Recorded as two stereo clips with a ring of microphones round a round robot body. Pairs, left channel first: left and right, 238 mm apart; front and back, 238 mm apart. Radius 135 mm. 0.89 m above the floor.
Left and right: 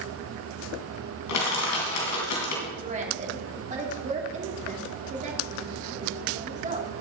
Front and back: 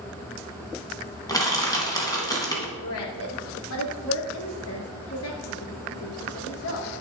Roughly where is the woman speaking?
Ahead right.